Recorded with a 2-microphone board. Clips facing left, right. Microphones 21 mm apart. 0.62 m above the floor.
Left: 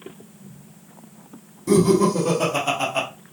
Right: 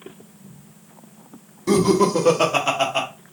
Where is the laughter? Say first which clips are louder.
Even; 30° right (ahead or behind), 1.4 m; by 3.1 s 20° right (ahead or behind), 1.6 m.